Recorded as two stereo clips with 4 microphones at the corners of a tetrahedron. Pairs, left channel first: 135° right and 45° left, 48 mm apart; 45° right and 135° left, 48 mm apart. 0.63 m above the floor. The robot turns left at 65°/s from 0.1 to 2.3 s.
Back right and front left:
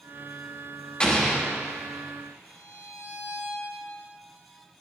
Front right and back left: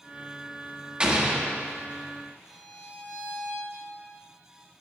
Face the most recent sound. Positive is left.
turn(degrees=-100)